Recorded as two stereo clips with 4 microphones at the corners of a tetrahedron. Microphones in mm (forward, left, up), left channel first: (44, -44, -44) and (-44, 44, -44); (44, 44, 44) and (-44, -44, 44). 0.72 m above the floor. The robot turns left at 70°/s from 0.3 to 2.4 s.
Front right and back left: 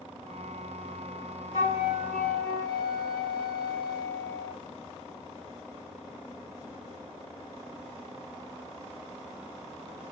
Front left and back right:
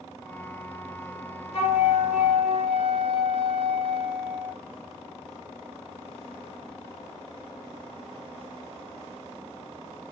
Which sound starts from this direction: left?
A flute, at 1.5 s.